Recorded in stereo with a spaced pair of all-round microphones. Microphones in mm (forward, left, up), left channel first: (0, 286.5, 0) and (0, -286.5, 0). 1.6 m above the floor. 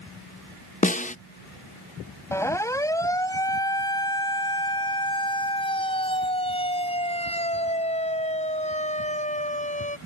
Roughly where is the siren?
Centre.